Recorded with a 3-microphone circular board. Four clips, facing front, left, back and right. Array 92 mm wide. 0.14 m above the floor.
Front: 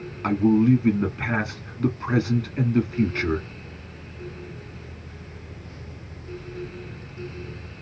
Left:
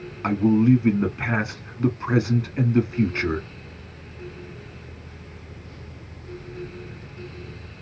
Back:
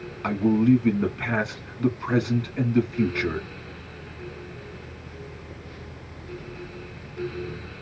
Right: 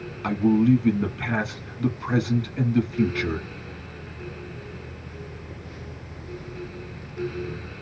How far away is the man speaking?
About 1.1 m.